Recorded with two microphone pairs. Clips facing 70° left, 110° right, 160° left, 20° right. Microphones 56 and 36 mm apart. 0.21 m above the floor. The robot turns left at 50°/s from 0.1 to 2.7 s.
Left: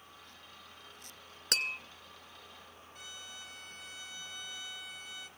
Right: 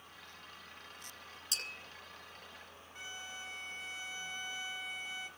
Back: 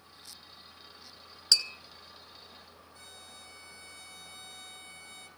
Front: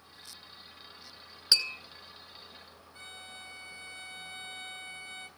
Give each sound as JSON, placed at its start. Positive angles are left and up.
{"t": 1.5, "sound": "tapping", "azimuth_deg": 50, "distance_m": 2.5}
{"t": 3.0, "sound": "a violin", "azimuth_deg": -60, "distance_m": 1.9}